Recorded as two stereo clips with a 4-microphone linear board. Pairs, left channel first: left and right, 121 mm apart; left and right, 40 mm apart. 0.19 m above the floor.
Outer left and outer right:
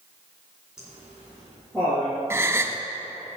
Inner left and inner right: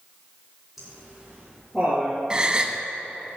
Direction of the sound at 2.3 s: 20° right (ahead or behind).